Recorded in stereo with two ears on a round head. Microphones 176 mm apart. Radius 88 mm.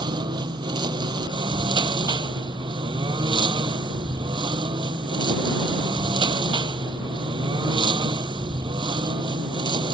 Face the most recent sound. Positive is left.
turn(degrees=-25)  # may be behind; listen again after turning